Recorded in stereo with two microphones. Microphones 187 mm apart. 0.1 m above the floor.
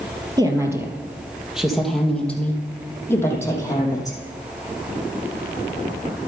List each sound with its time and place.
0.4 s a woman speaking: 20° right (ahead or behind), 2.5 m; by 4.2 s 20° left (ahead or behind), 4 m